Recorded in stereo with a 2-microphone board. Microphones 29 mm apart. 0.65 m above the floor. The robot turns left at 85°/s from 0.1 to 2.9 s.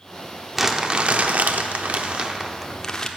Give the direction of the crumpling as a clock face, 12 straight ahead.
12 o'clock.